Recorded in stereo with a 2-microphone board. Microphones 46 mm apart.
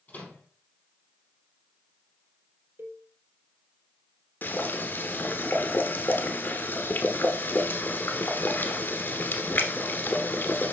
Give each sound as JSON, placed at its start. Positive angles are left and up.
{"t": 0.1, "sound": "a microwave", "side_deg": 35, "distance_m": 4.0}
{"t": 2.8, "sound": "a cowbell", "side_deg": -65, "distance_m": 1.3}
{"t": 4.4, "sound": "boiling", "side_deg": 50, "distance_m": 1.2}